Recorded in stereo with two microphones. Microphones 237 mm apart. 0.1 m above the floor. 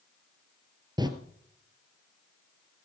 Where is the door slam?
15° right (ahead or behind), 1.7 m.